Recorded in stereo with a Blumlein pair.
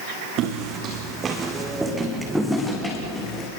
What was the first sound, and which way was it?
Footsteps, 35° right.